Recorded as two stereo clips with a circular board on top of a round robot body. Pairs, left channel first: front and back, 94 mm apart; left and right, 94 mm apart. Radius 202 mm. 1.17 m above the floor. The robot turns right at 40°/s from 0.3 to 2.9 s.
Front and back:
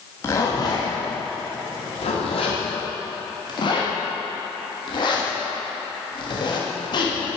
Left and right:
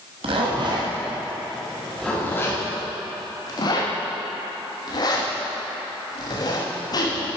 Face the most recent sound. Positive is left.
turn(degrees=40)